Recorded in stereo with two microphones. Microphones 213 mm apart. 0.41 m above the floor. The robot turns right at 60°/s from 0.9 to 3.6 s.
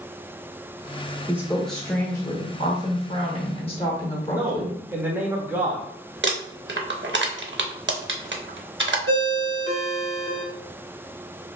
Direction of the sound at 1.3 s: 20° right.